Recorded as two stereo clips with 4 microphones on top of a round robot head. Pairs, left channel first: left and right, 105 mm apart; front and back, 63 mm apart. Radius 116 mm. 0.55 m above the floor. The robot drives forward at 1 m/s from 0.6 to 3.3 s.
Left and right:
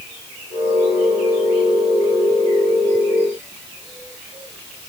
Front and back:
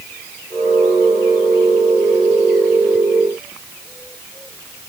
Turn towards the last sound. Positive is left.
No sound to turn to.